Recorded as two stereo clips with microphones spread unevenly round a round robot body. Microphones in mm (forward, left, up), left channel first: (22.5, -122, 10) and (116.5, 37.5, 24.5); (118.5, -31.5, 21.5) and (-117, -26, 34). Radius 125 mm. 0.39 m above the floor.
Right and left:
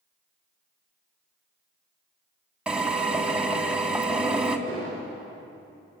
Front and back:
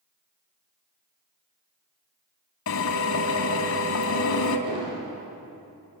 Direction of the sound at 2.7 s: 25° right.